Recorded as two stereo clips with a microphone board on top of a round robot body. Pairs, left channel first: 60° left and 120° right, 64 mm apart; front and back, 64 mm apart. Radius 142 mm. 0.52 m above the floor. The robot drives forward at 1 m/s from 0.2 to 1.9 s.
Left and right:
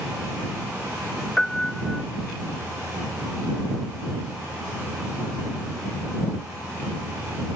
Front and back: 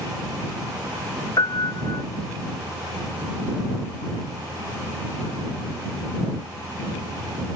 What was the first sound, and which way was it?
A piano, 25° right.